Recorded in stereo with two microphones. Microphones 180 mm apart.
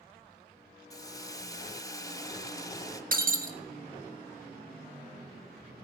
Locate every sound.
0.9 s a hiss: 20° left (ahead or behind), 0.9 m
3.1 s breaking glass: 55° right (ahead or behind), 1.7 m